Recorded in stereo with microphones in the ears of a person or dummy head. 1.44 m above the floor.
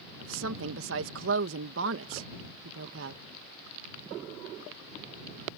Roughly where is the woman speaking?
Right.